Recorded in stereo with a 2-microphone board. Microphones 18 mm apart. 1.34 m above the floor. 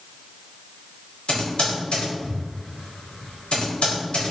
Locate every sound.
1.3 s typing on a keyboard: 80° left, 2.5 m